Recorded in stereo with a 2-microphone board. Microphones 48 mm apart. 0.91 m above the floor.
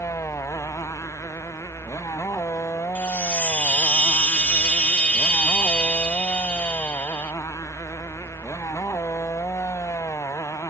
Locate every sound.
0.0 s a motorcycle: 90° left
3.0 s a chime: 30° left (ahead or behind)